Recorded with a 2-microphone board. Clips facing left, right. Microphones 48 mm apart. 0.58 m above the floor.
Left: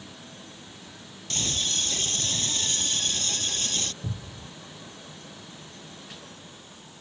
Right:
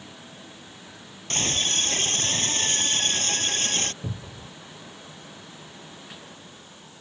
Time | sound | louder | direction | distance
1.3 | a scream | right 4 dB | 45° right (ahead or behind) | ?
4.0 | a cupboard door | right 1 dB | 45° right (ahead or behind) | ?